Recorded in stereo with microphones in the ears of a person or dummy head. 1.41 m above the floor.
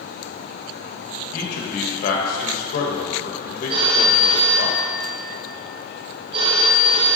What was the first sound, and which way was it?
A man speaking, 55° left (ahead or behind).